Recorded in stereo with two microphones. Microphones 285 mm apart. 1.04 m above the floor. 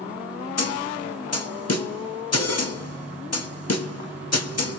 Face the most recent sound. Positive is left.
turn(degrees=60)  # may be behind; listen again after turning